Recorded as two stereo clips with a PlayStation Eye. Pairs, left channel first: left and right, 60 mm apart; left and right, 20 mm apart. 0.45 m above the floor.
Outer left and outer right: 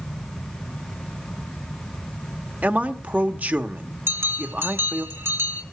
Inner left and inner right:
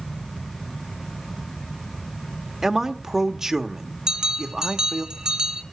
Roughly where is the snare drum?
No snare drum in this recording.